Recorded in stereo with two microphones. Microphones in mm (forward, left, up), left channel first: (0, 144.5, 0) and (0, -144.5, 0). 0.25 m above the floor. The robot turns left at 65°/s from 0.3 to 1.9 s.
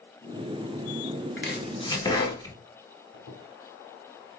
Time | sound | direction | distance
1.4 | chopping | 45° left (ahead or behind) | 1.0 m
3.1 | a squeak | 35° left (ahead or behind) | 1.3 m